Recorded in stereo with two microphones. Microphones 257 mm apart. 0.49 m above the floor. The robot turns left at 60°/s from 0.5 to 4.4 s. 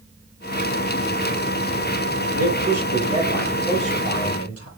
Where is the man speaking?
115° right, 9.5 m; by 4.7 s 120° left, 9.5 m.